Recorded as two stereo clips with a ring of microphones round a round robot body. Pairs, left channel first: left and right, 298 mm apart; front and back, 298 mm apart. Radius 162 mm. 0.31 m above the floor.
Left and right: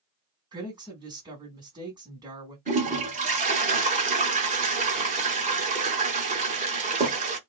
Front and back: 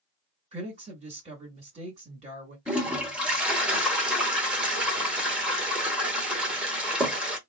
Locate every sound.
0.5 s a woman speaking: 145° right, 1.4 m
2.7 s a toilet flushing: 100° right, 1.0 m